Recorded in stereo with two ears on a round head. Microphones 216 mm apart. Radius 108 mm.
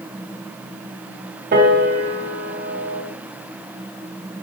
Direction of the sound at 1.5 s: 40° right (ahead or behind).